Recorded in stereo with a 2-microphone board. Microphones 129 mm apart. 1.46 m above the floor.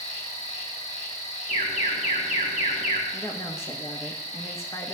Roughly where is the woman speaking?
Left.